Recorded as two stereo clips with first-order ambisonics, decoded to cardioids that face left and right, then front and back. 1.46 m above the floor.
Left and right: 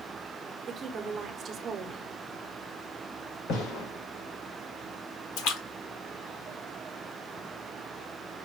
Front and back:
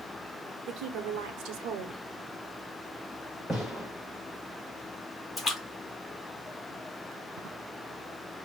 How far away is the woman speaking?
About 1.0 m.